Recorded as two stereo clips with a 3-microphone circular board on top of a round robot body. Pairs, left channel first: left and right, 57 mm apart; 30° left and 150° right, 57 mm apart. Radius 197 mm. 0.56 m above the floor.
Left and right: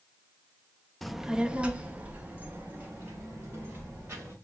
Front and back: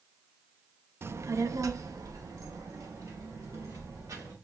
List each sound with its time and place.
1.0 s a child speaking: 175° left, 0.6 m; by 4.3 s 145° right, 2.5 m